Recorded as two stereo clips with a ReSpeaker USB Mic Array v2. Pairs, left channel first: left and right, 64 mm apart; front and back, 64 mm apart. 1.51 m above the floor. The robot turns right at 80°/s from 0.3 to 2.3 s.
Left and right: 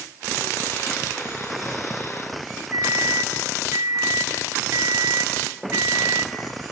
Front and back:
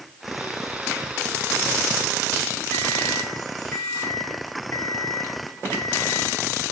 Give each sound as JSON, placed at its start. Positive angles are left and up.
{"t": 2.7, "sound": "a microwave", "azimuth_deg": -45, "distance_m": 5.0}